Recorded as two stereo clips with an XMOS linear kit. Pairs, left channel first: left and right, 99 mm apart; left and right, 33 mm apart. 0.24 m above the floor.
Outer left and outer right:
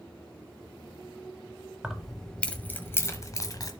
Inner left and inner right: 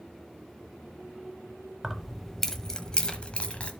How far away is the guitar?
I don't hear a guitar.